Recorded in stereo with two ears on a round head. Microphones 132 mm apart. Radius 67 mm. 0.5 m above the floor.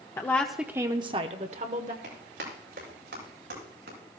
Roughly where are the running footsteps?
Right.